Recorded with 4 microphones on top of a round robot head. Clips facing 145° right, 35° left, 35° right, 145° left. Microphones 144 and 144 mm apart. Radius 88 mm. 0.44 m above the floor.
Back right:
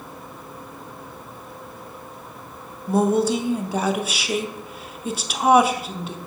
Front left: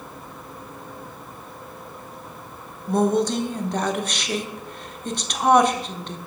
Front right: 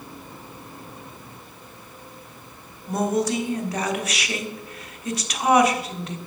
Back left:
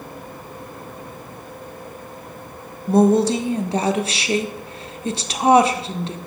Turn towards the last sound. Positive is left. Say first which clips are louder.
# back right 1 dB, back left 8 dB
turn(degrees=140)